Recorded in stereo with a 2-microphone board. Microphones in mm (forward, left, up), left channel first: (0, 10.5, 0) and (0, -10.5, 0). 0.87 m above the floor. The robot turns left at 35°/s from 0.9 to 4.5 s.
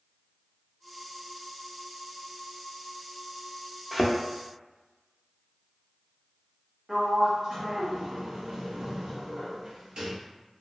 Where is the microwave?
No microwave in this recording.